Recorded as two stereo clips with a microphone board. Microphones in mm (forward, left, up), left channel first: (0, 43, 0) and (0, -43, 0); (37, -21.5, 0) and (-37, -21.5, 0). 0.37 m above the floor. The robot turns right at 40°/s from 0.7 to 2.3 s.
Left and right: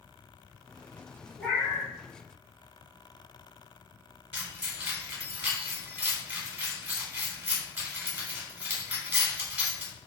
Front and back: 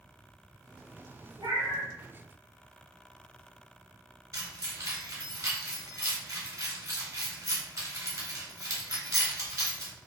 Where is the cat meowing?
150° left, 1.3 m; by 1.9 s 175° left, 1.3 m.